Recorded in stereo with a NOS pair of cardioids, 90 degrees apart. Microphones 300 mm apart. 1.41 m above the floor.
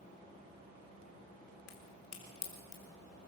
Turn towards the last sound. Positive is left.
turn(degrees=60)